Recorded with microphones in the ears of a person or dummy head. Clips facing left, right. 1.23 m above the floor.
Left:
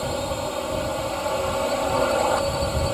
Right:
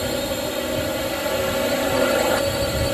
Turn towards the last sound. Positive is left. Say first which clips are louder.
# right 3 dB
turn(degrees=-20)  # may be behind; listen again after turning